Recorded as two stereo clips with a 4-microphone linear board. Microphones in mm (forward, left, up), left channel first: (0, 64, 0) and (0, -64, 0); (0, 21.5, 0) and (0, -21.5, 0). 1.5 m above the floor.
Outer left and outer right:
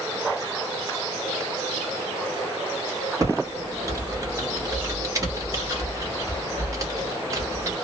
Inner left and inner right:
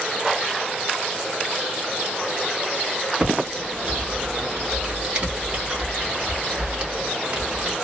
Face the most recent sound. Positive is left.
turn(degrees=-25)  # may be behind; listen again after turning